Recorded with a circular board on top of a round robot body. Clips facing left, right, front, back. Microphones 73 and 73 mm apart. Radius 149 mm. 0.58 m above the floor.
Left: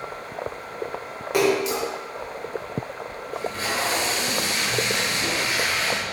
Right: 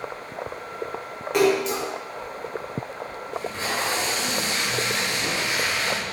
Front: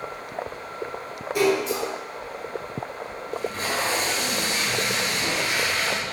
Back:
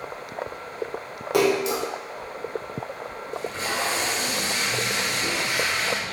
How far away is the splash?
About 0.6 m.